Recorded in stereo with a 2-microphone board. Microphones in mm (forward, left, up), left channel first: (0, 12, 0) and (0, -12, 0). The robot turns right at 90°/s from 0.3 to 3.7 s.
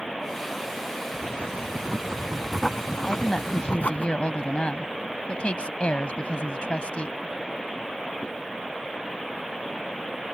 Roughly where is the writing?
Behind right.